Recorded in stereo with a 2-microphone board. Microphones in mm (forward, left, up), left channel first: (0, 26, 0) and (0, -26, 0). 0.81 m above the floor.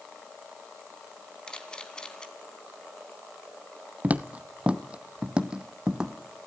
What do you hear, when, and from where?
1.5 s a camera shutter: 20° left (ahead or behind), 3 m
4.0 s footsteps: 25° right (ahead or behind), 0.9 m; by 6.1 s 10° right (ahead or behind), 2 m